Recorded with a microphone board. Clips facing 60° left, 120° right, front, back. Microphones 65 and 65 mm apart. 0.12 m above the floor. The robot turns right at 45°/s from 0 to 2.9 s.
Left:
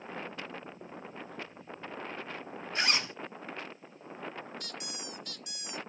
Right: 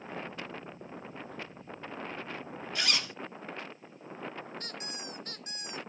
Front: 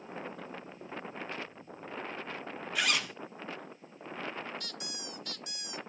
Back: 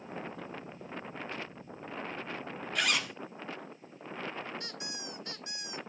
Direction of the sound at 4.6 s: 135° right.